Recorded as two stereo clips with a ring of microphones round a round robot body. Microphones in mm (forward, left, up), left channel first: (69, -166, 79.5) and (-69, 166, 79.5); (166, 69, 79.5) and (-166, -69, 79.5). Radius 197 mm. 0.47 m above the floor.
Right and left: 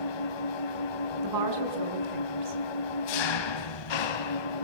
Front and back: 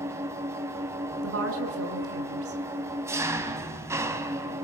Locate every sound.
0.0 s an engine running: 75° right, 1.9 m
1.2 s a woman speaking: 150° left, 5.5 m